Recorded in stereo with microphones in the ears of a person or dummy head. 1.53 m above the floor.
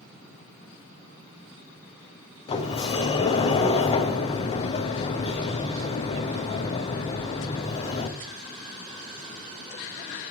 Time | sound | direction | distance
2.5 | a sliding door | 25° left (ahead or behind) | 0.6 m